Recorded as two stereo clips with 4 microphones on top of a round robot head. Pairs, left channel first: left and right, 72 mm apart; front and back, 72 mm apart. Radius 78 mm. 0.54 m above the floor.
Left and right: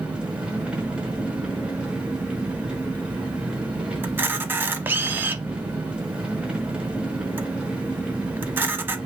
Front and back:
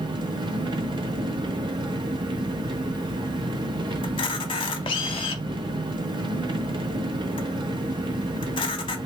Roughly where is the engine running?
Behind.